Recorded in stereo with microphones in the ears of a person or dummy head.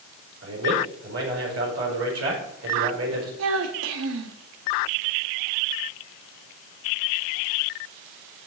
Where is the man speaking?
80° right, 4.5 m.